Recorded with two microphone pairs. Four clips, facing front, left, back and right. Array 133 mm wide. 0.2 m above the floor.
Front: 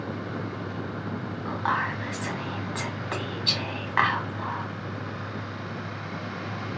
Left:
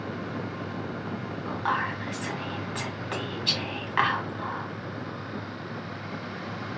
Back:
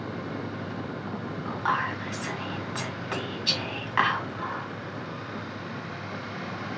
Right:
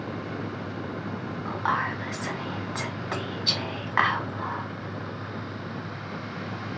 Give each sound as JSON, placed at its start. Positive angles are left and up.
{"t": 1.4, "sound": "whispering", "azimuth_deg": -60, "distance_m": 1.5}